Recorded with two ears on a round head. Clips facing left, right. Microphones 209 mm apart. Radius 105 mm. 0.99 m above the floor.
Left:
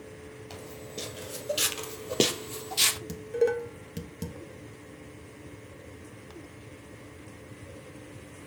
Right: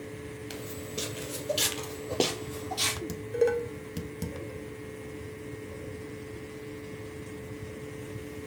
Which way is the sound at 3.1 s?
Centre (ahead or behind).